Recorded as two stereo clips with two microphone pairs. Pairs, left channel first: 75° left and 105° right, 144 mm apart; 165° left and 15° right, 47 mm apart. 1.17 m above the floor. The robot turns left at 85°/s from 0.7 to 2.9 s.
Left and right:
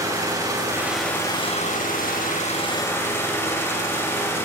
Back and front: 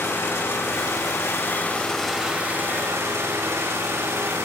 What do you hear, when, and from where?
0.0 s an engine running: 170° right, 6 m; by 4.5 s 5° left, 6 m